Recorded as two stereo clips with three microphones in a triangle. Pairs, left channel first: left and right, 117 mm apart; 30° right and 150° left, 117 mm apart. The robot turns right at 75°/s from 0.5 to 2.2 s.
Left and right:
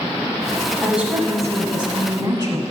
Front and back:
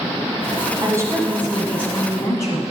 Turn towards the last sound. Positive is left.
turn(degrees=-75)